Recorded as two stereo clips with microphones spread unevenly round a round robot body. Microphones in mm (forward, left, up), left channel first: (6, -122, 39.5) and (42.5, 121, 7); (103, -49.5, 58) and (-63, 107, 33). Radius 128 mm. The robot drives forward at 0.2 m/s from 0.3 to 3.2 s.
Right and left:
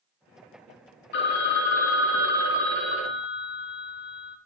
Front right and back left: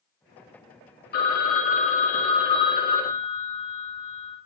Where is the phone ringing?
75° right, 0.7 m; by 4.4 s 125° right, 0.8 m.